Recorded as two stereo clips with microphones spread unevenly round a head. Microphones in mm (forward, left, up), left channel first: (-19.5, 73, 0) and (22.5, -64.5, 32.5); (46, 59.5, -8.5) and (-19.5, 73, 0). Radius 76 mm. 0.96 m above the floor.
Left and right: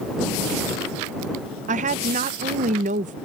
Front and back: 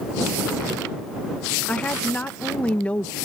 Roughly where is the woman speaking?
Ahead right.